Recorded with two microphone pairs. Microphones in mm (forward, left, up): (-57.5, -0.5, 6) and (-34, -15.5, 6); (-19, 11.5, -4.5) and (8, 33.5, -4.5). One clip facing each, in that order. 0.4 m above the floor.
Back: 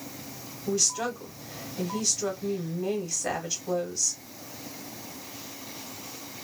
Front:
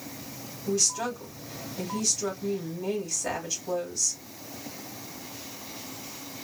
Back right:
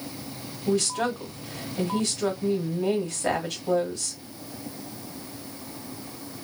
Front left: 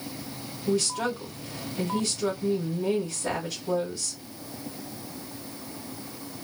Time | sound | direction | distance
0.7 | a woman speaking | 130° right | 1.9 m